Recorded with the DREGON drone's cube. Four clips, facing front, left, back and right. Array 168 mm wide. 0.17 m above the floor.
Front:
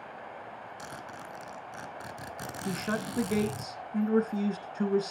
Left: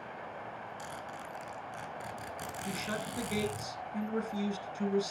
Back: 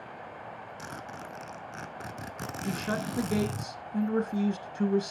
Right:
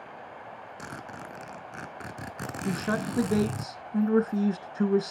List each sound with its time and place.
0.8 s a zipper: 110° right, 1.0 m
2.6 s a man speaking: 85° right, 1.3 m